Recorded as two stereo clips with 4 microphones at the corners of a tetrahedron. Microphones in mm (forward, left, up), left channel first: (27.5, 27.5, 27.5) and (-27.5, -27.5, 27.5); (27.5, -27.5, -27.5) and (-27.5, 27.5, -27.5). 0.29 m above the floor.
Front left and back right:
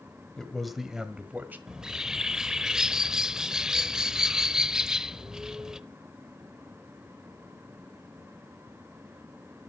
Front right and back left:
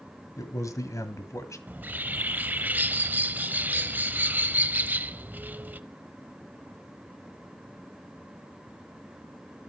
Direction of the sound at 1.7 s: 150° left.